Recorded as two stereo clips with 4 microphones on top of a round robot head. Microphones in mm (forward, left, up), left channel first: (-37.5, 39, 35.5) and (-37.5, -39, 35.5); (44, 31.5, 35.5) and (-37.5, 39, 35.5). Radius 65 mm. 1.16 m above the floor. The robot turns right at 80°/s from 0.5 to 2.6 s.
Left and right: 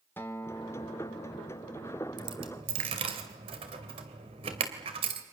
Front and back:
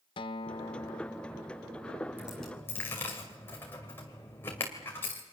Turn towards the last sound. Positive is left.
turn(degrees=-80)